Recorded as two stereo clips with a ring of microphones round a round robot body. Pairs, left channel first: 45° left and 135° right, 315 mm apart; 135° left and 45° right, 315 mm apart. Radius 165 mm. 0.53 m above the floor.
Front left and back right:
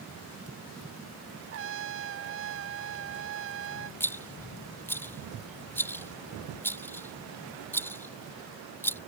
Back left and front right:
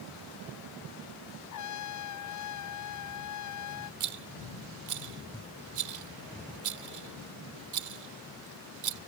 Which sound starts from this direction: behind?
A trumpet, at 1.5 s.